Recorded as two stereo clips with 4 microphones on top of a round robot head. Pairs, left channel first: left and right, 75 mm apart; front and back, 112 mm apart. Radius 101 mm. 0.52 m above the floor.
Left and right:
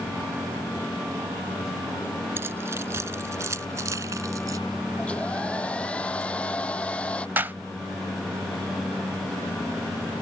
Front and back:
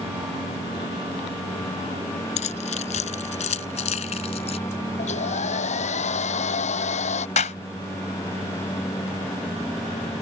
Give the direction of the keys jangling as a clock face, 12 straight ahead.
1 o'clock.